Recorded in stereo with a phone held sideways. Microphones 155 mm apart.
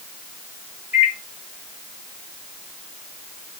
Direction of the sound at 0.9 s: 10° right (ahead or behind).